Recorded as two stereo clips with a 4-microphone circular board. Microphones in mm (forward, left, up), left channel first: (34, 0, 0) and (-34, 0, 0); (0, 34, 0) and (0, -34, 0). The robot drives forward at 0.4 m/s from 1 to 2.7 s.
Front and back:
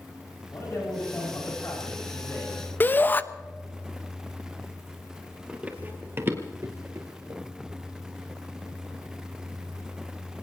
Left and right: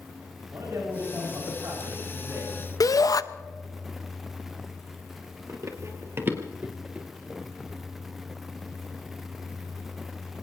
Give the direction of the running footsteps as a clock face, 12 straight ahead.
4 o'clock.